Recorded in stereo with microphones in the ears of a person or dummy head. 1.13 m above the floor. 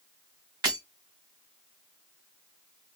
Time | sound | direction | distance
0.6 | breaking glass | 30° right (ahead or behind) | 1.5 m